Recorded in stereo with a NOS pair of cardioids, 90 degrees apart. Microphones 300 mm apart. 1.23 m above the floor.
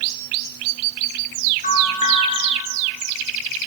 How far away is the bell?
About 5.5 m.